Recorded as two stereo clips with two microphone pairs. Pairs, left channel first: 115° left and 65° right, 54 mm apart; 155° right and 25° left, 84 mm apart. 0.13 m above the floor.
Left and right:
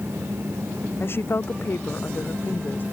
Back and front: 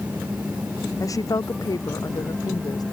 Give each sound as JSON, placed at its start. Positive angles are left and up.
{"t": 1.0, "sound": "a woman speaking", "azimuth_deg": 155}